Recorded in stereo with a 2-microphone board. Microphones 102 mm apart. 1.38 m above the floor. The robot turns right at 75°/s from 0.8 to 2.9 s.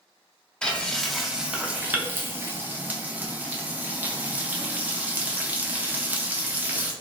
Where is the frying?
10° left (ahead or behind), 0.5 m; by 6.9 s 15° right (ahead or behind), 0.5 m.